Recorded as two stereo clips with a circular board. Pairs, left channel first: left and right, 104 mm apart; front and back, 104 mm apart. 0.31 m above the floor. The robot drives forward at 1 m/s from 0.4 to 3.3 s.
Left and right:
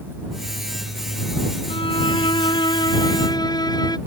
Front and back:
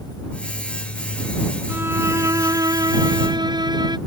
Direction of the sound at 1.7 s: 110° left.